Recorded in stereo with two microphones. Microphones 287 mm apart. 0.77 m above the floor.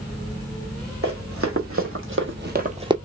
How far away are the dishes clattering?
I don't hear dishes clattering.